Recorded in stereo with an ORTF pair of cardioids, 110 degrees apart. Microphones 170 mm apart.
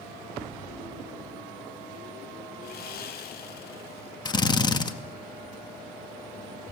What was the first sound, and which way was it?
Sawing, 65° left.